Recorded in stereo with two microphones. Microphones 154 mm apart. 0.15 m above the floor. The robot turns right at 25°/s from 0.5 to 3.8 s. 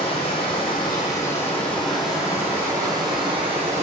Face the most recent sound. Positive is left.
turn(degrees=-135)